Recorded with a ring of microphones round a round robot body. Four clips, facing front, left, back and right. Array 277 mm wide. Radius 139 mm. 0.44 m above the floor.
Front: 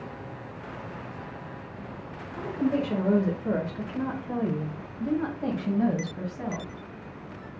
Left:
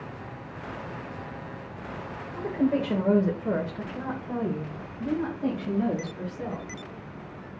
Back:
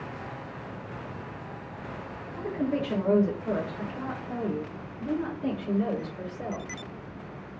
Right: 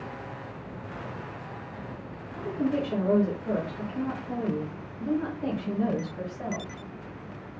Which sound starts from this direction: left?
A woman speaking, at 2.3 s.